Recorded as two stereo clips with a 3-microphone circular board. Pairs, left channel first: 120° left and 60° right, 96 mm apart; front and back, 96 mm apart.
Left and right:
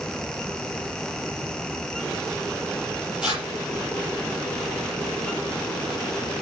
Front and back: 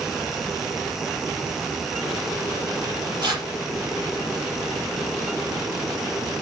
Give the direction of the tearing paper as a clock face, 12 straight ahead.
5 o'clock.